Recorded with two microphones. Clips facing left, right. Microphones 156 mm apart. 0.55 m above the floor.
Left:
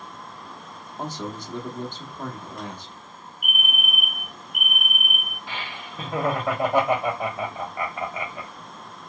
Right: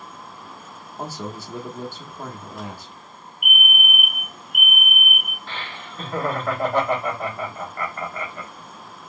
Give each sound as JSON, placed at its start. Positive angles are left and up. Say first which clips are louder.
{"t": 1.0, "sound": "a man speaking", "louder": "even", "side_deg": -5, "distance_m": 0.8}
{"t": 3.4, "sound": "a fire alarm", "louder": "right 4 dB", "side_deg": 30, "distance_m": 2.0}
{"t": 5.5, "sound": "laughter", "louder": "even", "side_deg": 10, "distance_m": 1.2}